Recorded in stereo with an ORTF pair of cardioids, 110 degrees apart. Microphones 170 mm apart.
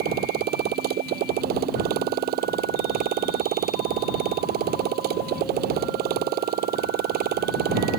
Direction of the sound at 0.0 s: 65° right.